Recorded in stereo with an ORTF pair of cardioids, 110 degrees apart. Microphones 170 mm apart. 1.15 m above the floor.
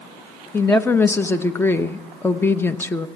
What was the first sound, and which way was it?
A woman speaking, 15° left.